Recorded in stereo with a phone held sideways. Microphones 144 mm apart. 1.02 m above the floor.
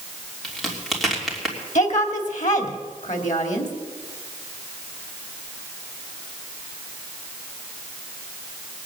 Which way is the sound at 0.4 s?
Centre (ahead or behind).